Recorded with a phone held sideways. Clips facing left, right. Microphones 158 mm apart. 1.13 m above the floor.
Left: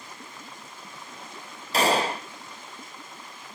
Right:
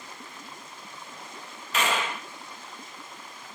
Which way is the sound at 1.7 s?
35° left (ahead or behind).